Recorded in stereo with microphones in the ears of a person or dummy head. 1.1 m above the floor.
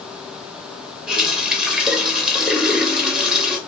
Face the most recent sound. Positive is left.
turn(degrees=-5)  # may be behind; listen again after turning